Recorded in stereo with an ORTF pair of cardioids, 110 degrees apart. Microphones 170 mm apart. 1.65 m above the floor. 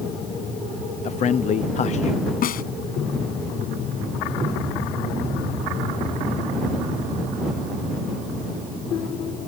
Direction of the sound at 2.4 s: 55° left.